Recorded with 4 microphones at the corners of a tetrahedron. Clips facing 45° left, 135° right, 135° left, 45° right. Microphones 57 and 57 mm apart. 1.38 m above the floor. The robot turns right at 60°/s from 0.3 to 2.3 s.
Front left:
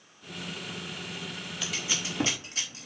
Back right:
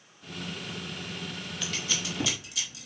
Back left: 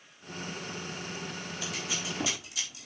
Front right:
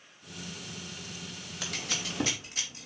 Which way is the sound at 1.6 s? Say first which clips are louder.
Even, front right 1 dB; 45° right.